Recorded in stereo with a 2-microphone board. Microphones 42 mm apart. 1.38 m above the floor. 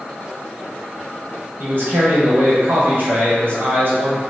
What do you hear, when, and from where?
1.6 s a man speaking: 50° right (ahead or behind), 1.1 m